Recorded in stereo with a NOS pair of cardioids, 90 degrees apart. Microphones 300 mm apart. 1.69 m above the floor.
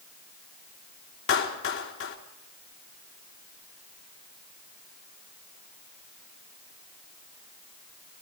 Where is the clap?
45° left, 4 m.